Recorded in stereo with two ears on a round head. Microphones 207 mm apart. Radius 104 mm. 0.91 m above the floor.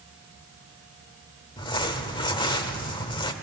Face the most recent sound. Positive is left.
turn(degrees=20)  # may be behind; listen again after turning